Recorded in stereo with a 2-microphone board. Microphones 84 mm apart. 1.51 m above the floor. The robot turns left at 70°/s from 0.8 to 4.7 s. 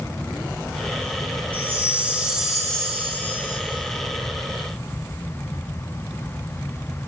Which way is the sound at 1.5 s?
25° right (ahead or behind).